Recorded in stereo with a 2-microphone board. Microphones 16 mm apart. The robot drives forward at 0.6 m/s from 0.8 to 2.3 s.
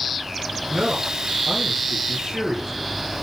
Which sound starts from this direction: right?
A man speaking, at 0.7 s.